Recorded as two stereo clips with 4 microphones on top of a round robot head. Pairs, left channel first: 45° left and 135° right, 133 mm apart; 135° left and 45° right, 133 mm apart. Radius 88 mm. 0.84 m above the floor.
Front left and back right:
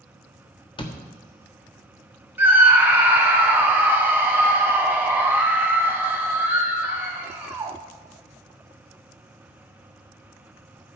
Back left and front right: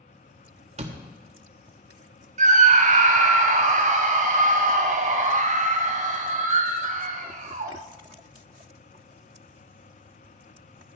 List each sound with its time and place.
0.8 s a door slam: 10° right, 1.3 m
2.4 s a scream: 60° right, 1.2 m